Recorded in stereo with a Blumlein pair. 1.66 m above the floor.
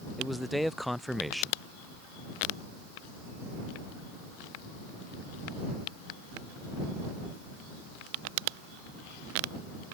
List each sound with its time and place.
0.2 s a man speaking: straight ahead